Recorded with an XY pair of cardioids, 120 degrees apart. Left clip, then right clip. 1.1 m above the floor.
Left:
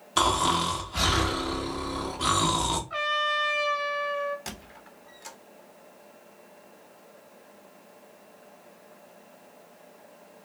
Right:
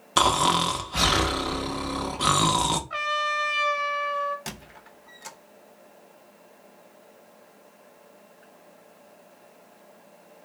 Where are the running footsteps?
I don't hear running footsteps.